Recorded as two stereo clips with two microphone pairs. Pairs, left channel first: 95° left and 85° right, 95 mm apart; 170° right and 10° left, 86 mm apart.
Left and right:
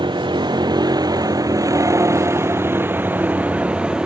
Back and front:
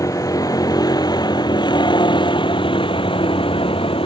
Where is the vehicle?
120° right; by 4.1 s 165° right.